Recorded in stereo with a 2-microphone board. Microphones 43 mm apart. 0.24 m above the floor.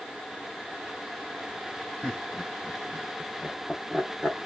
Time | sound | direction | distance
2.0 | laughter | 10° left (ahead or behind) | 1.5 m